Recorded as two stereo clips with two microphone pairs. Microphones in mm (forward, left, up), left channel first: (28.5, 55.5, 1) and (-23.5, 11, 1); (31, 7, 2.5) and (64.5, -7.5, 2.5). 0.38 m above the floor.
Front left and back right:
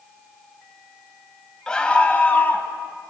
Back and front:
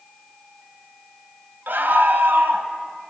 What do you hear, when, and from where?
1.7 s a scream: 35° right, 1.6 m; by 2.7 s 20° right, 2 m